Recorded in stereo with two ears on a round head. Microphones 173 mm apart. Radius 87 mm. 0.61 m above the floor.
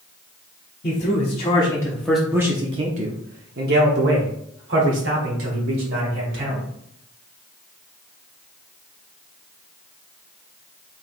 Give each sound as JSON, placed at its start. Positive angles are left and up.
{"t": 0.8, "sound": "a man speaking", "side_deg": 40, "distance_m": 1.1}